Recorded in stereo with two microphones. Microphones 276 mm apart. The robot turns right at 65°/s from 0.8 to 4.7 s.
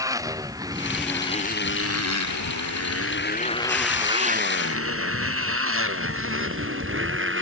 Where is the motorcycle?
10° right (ahead or behind); by 7.4 s 45° right (ahead or behind).